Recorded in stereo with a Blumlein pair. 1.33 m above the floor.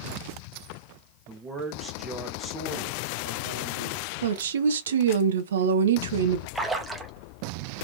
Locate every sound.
1.3 s a man speaking: 20° right, 1.1 m; by 4.1 s 65° left, 1.3 m
4.2 s a woman speaking: 65° right, 0.7 m
6.5 s a splash: 5° right, 0.7 m